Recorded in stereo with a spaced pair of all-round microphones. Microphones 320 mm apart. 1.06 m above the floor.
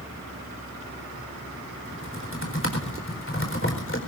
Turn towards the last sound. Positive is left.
turn(degrees=40)  # may be behind; listen again after turning